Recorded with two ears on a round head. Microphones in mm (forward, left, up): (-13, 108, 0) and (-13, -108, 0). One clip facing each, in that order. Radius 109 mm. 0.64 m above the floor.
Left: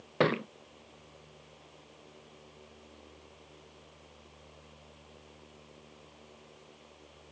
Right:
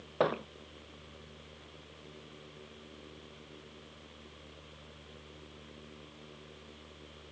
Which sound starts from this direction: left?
A thud, at 0.2 s.